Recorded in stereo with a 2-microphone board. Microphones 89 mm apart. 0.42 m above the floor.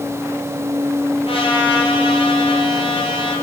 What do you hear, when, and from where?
1.3 s a trumpet: 80° left, 6 m